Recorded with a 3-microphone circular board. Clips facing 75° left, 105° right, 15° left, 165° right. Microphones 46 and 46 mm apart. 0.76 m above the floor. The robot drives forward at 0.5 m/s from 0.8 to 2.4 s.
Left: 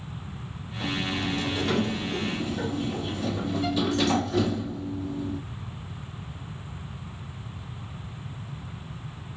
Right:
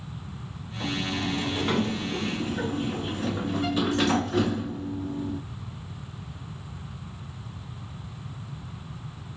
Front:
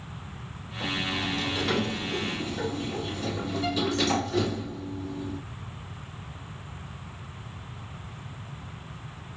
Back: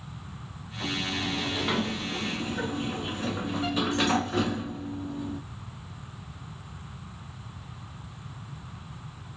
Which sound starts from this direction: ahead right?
A sliding door, at 0.8 s.